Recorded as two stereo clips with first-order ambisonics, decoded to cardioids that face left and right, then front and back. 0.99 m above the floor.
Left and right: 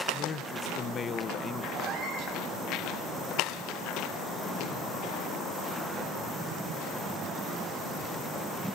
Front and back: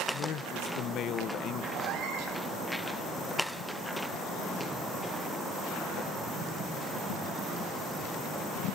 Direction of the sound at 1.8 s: 140° right.